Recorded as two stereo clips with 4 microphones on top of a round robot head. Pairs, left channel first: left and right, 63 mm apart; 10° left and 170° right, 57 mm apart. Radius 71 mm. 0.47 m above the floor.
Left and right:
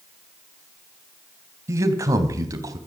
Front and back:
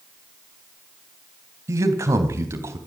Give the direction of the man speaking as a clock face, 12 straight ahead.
4 o'clock.